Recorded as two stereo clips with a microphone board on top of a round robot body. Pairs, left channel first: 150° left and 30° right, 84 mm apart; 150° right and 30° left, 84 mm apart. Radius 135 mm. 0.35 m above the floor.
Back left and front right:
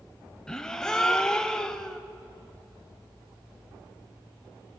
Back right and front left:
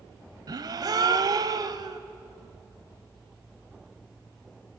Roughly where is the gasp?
Left.